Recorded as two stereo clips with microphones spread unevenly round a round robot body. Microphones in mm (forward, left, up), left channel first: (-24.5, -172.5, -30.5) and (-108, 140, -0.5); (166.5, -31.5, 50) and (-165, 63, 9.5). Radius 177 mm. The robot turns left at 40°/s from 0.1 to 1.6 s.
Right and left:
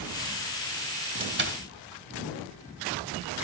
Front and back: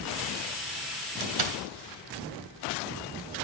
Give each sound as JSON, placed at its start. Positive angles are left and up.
{"t": 1.2, "sound": "a door slam", "azimuth_deg": 170, "distance_m": 2.0}